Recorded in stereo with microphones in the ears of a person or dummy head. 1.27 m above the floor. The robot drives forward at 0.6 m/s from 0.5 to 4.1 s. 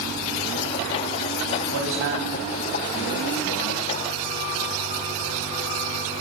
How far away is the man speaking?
About 8.5 m.